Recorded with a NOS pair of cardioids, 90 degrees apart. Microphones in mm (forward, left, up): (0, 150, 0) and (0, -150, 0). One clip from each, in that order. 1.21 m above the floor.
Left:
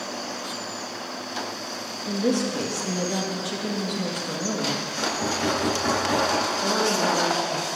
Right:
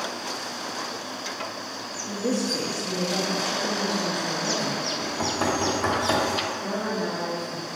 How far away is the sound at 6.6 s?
About 1.8 m.